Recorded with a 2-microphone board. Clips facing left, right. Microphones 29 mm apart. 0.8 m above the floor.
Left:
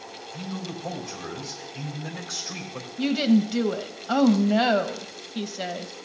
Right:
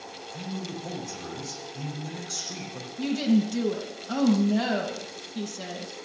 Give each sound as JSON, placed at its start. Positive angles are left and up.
{"t": 0.3, "sound": "a man speaking", "side_deg": 15, "distance_m": 3.5}
{"t": 3.0, "sound": "a woman speaking", "side_deg": 35, "distance_m": 0.9}